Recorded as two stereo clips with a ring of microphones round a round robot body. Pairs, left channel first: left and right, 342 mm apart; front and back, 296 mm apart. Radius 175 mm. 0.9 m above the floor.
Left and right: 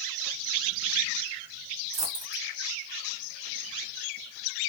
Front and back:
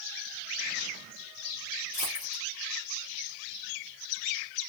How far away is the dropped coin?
About 1.4 m.